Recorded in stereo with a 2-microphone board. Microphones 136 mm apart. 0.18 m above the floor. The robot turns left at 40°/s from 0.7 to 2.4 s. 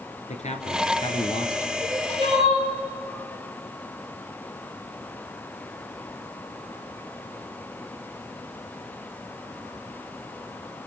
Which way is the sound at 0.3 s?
65° left.